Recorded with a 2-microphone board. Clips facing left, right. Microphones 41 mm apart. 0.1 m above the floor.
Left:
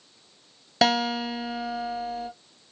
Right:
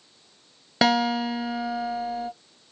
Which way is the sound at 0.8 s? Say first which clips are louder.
Right 2 dB; 15° right (ahead or behind).